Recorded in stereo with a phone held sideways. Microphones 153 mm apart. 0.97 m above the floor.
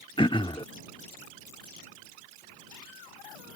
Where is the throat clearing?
35° left (ahead or behind).